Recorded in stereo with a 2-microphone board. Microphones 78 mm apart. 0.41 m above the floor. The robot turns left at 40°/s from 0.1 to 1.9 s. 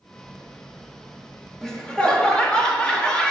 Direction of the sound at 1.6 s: 5° left (ahead or behind).